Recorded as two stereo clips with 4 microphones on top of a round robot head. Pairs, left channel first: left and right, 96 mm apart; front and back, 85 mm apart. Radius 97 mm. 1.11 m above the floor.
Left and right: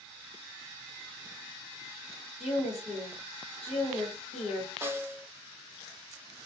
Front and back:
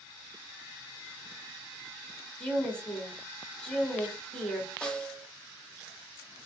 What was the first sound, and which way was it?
A woman speaking, 80° left.